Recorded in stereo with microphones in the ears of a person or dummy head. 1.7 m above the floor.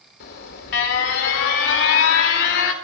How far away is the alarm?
About 1.7 m.